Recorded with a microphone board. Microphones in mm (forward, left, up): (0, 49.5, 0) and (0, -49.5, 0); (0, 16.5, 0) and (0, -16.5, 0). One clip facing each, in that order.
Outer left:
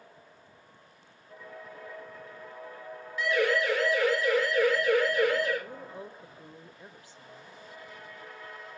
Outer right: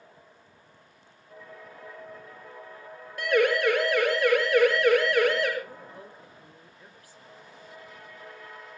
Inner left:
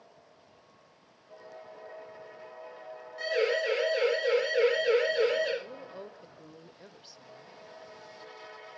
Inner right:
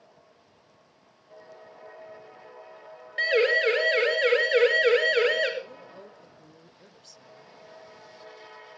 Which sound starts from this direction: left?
A woman speaking, at 5.6 s.